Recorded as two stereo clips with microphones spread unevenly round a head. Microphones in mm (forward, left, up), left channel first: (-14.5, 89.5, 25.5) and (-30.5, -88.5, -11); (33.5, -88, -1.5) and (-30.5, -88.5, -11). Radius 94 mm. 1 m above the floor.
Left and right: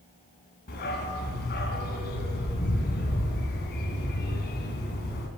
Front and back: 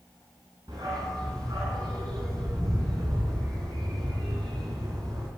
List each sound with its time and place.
0.7 s a dog barking: 115° left, 3.5 m